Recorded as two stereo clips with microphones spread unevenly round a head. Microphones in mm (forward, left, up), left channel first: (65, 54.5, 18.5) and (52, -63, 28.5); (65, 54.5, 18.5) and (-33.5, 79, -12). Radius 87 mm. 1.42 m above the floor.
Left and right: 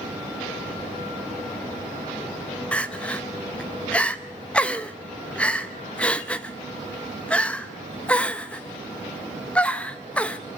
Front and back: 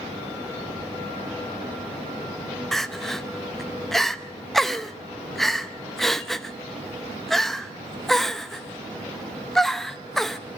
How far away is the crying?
About 0.7 m.